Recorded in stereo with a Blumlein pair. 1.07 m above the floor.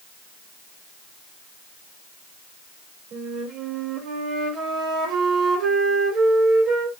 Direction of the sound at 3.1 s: 35° right.